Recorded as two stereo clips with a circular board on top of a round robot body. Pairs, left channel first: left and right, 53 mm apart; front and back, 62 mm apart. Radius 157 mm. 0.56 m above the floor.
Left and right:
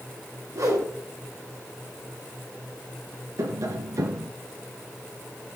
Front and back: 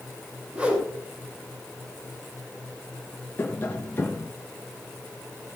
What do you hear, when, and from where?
0.5 s a whoosh: 110° right, 4.5 m
3.4 s tapping: 60° right, 1.5 m